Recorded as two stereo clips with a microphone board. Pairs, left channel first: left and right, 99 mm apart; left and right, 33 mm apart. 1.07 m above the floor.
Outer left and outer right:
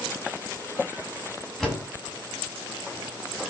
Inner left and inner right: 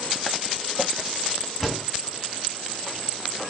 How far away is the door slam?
About 7 m.